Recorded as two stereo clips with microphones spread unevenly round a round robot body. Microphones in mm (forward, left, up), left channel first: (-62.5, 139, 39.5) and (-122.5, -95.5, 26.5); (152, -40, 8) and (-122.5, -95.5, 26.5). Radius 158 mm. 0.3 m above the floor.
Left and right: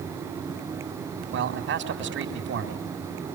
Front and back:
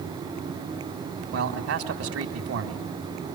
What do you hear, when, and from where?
1.3 s a man speaking: 135° right, 3 m